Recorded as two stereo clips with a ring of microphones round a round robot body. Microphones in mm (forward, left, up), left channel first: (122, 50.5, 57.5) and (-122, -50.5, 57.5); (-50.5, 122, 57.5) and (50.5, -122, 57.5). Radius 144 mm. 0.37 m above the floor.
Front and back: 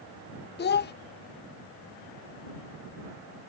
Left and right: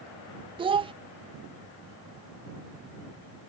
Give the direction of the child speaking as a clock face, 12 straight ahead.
12 o'clock.